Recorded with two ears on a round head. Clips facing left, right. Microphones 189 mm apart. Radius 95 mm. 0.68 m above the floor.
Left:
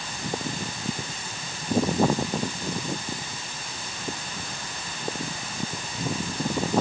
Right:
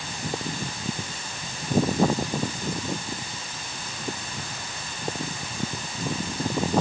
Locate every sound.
Only background noise.